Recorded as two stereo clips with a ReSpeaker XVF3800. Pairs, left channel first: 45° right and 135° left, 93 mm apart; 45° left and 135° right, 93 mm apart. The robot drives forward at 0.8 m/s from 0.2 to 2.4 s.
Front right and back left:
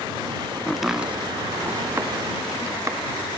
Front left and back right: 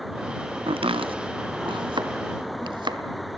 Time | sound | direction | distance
0.7 | chopping | 125° right | 0.5 m